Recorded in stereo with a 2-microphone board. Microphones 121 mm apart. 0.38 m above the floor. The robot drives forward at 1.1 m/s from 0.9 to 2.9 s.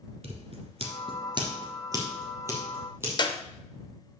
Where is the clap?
35° left (ahead or behind), 0.7 m.